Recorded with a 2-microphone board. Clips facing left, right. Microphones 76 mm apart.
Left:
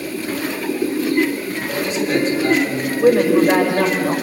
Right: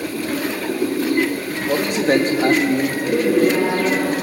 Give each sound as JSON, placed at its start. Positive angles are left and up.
{"t": 1.7, "sound": "a man speaking", "side_deg": -55, "distance_m": 2.5}
{"t": 3.0, "sound": "a woman speaking", "side_deg": 70, "distance_m": 6.5}